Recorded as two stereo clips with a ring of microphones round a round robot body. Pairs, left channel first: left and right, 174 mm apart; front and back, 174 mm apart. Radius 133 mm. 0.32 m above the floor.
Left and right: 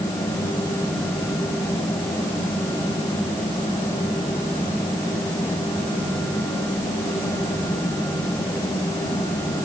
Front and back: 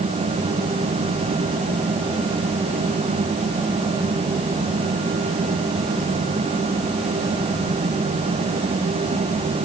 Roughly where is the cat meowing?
I don't hear a cat meowing.